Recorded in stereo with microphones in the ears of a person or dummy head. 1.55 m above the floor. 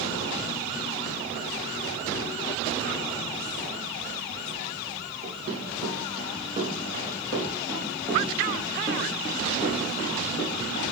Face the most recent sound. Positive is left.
turn(degrees=30)  # may be behind; listen again after turning